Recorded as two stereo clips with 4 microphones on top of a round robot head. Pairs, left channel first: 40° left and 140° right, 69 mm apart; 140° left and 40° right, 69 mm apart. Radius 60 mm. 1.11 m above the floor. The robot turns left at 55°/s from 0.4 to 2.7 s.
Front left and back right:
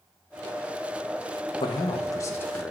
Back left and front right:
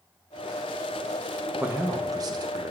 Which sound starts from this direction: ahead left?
A man speaking, at 1.6 s.